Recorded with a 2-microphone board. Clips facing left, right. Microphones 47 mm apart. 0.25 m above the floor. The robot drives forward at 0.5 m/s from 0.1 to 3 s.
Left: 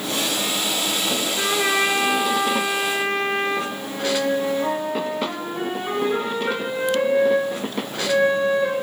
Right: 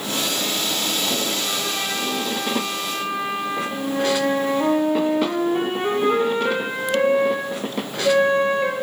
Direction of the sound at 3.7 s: 50° right (ahead or behind).